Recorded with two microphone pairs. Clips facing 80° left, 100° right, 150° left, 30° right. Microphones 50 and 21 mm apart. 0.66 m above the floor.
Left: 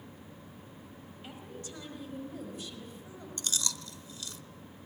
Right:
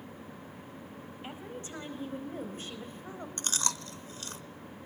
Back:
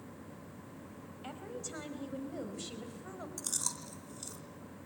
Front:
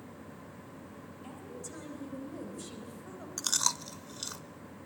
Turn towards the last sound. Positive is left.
turn(degrees=-55)